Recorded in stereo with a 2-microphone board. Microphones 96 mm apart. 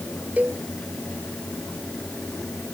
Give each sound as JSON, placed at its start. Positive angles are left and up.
{"t": 0.4, "sound": "a cowbell", "side_deg": -15}